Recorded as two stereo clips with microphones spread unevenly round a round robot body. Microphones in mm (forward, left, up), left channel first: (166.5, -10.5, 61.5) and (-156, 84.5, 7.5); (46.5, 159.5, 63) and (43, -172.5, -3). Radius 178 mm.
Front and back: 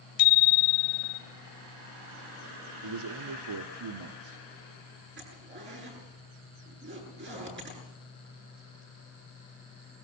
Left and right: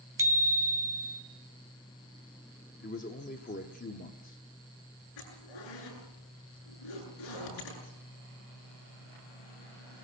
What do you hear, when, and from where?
0.2 s a bicycle bell: 10° right, 2.5 m
2.8 s a man speaking: 160° left, 1.0 m
5.2 s a zipper: 105° left, 8.5 m